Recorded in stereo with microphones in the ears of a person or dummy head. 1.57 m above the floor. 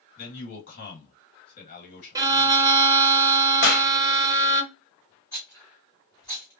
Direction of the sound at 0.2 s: 50° left (ahead or behind).